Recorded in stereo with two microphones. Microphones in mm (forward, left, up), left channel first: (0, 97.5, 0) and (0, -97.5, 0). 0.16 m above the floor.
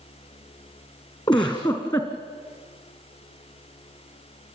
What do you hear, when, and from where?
1.3 s a giggle: 25° left (ahead or behind), 3.5 m